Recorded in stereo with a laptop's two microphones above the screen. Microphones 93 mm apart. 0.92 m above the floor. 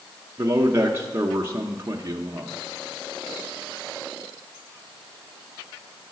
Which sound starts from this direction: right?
A man speaking, at 0.4 s.